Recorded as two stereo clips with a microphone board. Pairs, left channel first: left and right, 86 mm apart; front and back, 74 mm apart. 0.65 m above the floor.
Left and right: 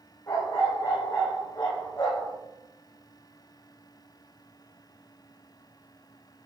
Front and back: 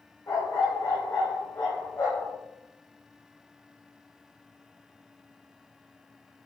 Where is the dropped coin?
I don't hear a dropped coin.